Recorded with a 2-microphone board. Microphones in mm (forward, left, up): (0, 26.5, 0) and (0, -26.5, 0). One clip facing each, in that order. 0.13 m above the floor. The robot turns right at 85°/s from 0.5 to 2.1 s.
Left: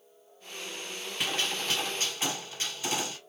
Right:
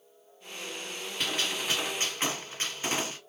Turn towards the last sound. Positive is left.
turn(degrees=-120)